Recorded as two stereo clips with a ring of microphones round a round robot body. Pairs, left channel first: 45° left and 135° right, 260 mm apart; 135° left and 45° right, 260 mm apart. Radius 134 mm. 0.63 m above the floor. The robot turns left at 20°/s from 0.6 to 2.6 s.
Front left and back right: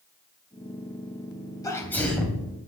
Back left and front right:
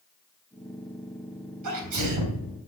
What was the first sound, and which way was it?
A sneeze, 30° right.